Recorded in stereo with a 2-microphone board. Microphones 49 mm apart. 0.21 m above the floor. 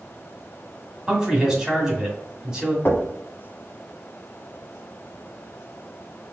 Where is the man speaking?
15° right (ahead or behind), 1.7 m.